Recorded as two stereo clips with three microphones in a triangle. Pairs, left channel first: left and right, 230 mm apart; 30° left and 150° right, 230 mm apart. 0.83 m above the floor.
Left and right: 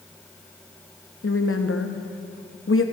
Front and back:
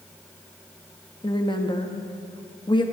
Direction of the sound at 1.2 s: 95° left.